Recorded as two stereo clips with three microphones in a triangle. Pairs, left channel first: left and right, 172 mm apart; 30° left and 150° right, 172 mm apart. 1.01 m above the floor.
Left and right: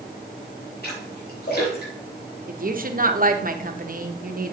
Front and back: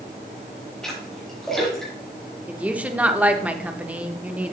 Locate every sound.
0.8 s a splash: 115° left, 4 m
2.5 s a woman speaking: 70° right, 0.9 m